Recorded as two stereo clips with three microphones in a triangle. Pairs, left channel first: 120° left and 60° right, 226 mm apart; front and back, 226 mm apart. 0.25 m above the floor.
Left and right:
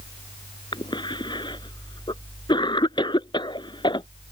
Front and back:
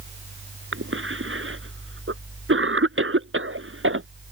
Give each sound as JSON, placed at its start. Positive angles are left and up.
{"t": 0.7, "sound": "a cough", "azimuth_deg": -170}